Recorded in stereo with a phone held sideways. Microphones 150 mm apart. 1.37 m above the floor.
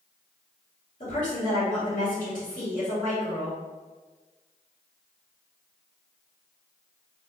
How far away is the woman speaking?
About 2.0 m.